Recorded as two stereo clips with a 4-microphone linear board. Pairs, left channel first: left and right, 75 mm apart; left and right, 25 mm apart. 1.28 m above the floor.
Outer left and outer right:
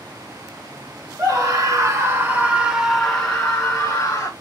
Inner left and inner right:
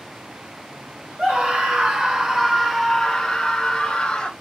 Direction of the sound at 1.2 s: 55° right (ahead or behind).